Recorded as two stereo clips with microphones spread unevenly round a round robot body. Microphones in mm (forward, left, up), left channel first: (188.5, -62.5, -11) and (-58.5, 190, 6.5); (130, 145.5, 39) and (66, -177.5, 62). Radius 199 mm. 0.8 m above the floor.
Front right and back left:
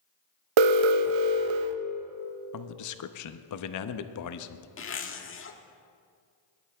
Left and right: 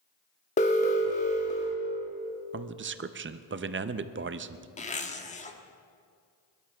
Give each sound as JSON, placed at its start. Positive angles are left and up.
{"t": 0.6, "sound": "an alarm", "azimuth_deg": 150, "distance_m": 0.5}
{"t": 2.5, "sound": "a man speaking", "azimuth_deg": -50, "distance_m": 0.7}
{"t": 4.8, "sound": "a zipper", "azimuth_deg": 10, "distance_m": 1.2}